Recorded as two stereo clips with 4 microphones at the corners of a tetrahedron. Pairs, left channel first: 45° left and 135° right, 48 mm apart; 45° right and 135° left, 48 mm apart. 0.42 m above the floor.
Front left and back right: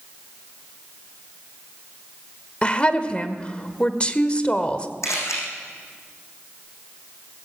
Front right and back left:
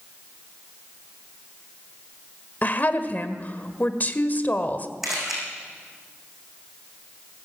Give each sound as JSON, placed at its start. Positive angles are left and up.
{"t": 2.6, "sound": "a woman speaking", "azimuth_deg": -15, "distance_m": 1.6}
{"t": 5.0, "sound": "a camera shutter", "azimuth_deg": 50, "distance_m": 6.0}